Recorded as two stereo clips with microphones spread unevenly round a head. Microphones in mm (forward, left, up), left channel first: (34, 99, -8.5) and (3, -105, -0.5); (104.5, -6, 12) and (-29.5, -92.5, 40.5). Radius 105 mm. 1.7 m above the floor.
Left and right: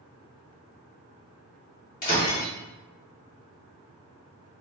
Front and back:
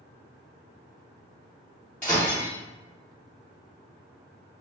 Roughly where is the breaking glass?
Behind left.